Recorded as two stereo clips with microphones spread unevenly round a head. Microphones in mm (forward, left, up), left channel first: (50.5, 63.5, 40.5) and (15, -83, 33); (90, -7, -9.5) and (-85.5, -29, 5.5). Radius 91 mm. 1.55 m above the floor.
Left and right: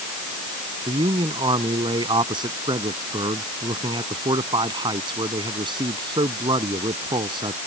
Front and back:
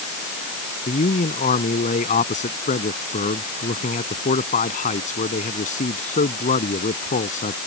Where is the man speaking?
40° right.